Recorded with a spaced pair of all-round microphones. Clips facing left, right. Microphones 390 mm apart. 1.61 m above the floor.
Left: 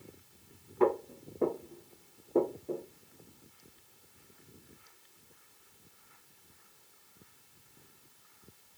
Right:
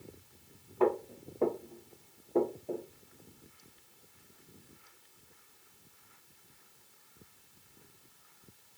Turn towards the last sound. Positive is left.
turn(degrees=10)  # may be behind; listen again after turning